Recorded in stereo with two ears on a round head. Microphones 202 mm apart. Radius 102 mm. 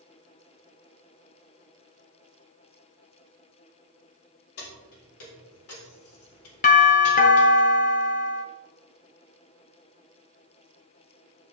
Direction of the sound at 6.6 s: 35° left (ahead or behind).